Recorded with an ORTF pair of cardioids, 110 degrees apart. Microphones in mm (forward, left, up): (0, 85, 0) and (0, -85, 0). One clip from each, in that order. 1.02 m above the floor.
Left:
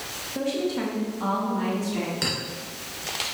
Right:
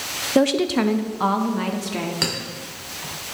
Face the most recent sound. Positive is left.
turn(degrees=-35)